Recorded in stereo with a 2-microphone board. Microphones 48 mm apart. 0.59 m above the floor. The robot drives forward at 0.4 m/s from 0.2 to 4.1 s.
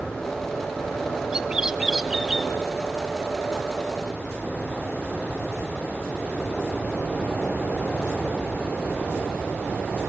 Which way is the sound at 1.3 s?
15° right (ahead or behind).